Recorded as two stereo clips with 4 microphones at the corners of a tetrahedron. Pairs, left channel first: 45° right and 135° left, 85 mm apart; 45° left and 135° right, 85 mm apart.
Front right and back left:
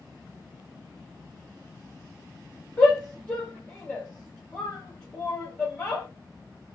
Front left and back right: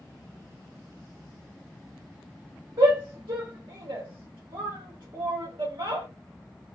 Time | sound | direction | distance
2.8 | a shout | 120° right | 0.7 m